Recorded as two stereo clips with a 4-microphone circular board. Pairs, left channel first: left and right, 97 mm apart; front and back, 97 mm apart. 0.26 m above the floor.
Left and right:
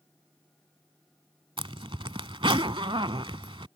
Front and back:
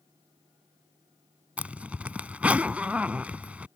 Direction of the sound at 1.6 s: 105° right.